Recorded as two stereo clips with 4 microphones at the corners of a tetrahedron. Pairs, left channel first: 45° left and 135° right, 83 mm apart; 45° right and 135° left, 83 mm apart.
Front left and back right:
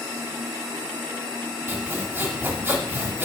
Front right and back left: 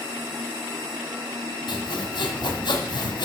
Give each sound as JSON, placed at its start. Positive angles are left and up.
{"t": 1.7, "sound": "sawing", "azimuth_deg": -70, "distance_m": 1.5}